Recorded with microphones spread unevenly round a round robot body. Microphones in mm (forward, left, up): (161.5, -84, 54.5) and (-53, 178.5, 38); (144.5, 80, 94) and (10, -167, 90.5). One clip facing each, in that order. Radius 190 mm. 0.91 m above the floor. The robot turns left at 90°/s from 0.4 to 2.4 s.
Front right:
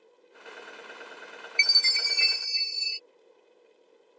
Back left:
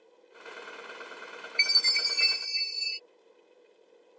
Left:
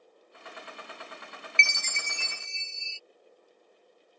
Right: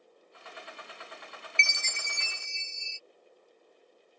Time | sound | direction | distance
1.6 | a chime | 30° left | ?